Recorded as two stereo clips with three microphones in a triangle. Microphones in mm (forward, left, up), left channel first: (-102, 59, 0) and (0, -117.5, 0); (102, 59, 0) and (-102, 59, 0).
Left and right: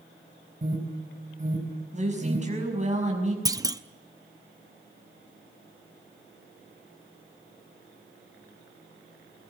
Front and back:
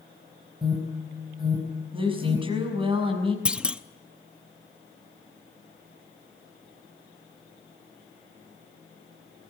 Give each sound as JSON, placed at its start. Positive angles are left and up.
{"t": 0.6, "sound": "an alarm", "azimuth_deg": -115, "distance_m": 5.0}
{"t": 1.9, "sound": "a woman speaking", "azimuth_deg": -115, "distance_m": 6.0}
{"t": 3.5, "sound": "a clunk", "azimuth_deg": -105, "distance_m": 0.6}